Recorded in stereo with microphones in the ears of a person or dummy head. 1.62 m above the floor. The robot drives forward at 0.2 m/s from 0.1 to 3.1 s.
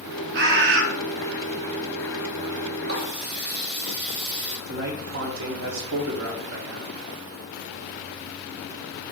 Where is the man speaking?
65° right (ahead or behind), 0.8 m.